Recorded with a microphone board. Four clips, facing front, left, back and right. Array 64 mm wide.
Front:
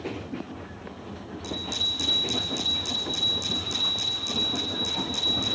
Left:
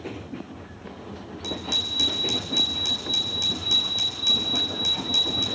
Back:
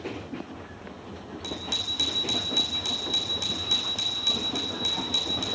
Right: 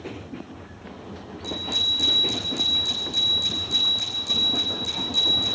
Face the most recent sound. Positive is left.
turn(degrees=150)